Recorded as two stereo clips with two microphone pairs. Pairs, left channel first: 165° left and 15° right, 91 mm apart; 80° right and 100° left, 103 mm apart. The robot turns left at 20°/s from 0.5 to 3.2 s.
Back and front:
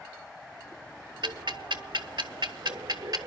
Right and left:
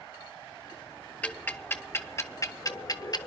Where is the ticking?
5° right, 0.6 m; by 3.3 s 45° right, 0.6 m.